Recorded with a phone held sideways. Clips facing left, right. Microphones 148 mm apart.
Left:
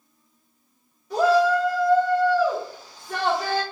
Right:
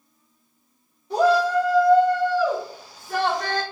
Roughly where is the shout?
Right.